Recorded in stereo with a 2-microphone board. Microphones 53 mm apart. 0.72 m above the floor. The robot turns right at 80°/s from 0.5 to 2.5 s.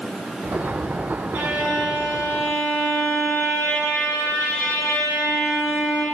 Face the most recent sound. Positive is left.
turn(degrees=45)